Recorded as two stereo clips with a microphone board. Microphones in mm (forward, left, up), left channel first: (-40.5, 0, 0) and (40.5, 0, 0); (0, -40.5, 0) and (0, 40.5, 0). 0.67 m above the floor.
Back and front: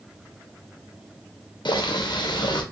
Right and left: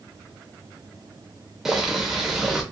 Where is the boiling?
175° left, 0.6 m.